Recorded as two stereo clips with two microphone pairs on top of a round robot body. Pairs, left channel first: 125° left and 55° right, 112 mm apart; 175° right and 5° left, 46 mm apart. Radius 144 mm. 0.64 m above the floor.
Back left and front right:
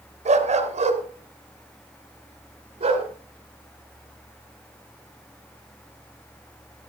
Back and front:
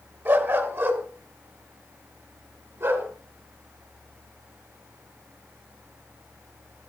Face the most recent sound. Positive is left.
turn(degrees=-20)